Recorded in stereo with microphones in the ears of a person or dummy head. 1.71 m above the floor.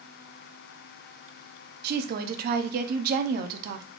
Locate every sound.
1.8 s a woman speaking: 55° right (ahead or behind), 0.5 m